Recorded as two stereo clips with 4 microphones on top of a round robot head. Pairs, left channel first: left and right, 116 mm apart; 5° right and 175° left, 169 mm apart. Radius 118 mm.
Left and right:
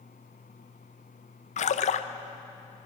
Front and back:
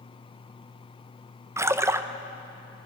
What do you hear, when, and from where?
1.6 s a splash: 100° left, 0.6 m